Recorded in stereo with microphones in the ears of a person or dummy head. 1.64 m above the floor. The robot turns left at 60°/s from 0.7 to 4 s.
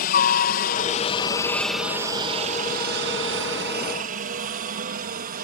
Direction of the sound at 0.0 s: 50° left (ahead or behind).